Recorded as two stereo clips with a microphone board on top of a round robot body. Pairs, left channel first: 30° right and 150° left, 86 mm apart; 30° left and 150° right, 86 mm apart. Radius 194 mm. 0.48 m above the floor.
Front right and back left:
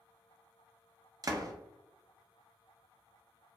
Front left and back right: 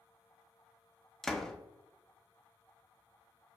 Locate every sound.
1.2 s a door slam: 115° left, 0.6 m